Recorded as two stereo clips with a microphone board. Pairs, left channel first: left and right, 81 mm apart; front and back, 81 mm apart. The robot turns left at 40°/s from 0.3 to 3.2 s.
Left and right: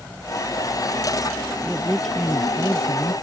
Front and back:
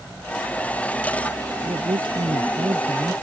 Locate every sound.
1.6 s a man speaking: 165° right; by 3.1 s 135° left